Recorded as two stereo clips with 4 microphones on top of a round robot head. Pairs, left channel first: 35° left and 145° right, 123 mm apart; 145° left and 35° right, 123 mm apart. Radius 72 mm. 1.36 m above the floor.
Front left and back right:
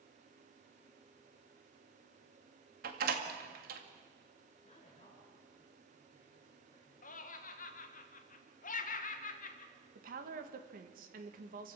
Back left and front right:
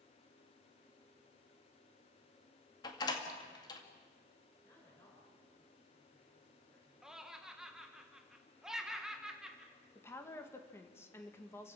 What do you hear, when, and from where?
2.8 s a door slam: 155° right, 2 m
4.6 s a woman speaking: 75° left, 6 m
7.0 s laughter: 50° left, 1.5 m
9.9 s a woman speaking: 145° right, 2 m